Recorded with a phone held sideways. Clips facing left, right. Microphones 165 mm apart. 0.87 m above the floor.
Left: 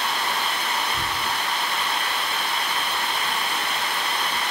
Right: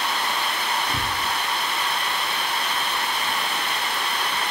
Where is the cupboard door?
75° right (ahead or behind), 6.5 m.